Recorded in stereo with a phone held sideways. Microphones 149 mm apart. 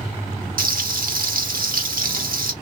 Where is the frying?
75° right (ahead or behind), 1.7 m.